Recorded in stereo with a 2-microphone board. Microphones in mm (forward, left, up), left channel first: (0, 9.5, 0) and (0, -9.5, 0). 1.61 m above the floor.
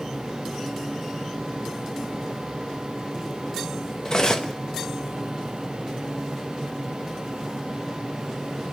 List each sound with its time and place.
4.0 s cutlery clinking: 35° left (ahead or behind), 1.2 m